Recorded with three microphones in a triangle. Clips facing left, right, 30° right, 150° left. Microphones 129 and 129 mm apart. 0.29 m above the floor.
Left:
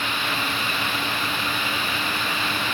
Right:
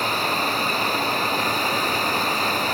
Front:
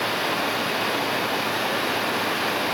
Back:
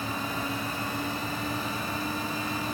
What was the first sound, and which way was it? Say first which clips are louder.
Running water: right 4 dB, front 7 dB; 40° right.